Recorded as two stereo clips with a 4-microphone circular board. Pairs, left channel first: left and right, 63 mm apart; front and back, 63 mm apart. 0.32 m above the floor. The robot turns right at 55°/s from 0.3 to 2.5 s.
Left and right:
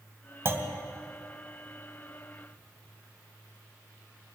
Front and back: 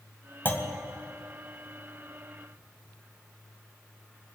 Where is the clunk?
50° right, 2 m; by 0.7 s 35° right, 2 m.